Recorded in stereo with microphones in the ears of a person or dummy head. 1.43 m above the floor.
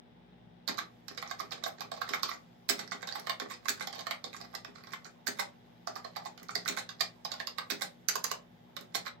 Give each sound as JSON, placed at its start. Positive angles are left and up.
{"t": 0.7, "sound": "typing on a keyboard", "side_deg": -60, "distance_m": 0.5}